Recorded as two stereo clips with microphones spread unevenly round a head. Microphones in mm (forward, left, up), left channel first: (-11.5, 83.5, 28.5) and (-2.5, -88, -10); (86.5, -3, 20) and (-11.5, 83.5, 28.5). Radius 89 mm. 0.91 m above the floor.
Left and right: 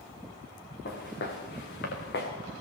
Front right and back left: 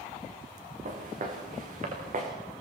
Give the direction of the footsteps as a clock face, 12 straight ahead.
8 o'clock.